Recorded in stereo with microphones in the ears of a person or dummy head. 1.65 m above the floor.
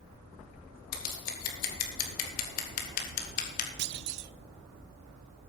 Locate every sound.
0.9 s scissors: 50° left (ahead or behind), 1.9 m
3.8 s a clunk: 60° right (ahead or behind), 0.5 m